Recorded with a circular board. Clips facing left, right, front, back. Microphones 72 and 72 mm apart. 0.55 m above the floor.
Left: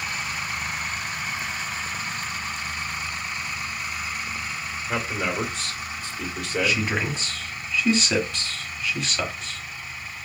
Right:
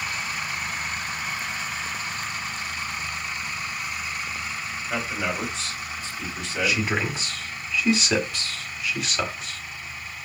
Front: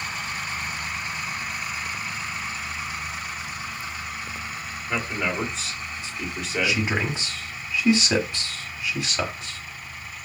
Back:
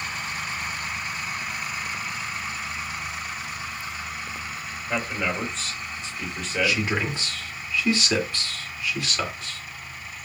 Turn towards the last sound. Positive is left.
turn(degrees=-15)